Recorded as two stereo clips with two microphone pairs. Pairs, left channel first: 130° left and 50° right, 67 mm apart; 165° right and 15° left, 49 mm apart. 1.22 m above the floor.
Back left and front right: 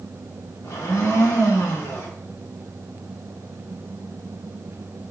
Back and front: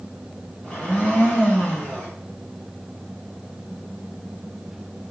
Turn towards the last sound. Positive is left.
turn(degrees=140)